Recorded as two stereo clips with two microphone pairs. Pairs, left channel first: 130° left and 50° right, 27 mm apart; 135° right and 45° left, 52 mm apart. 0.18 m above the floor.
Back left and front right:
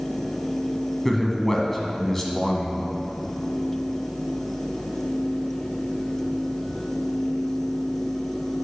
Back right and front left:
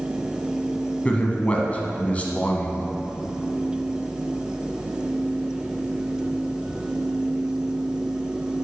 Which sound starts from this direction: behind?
A man speaking, at 1.1 s.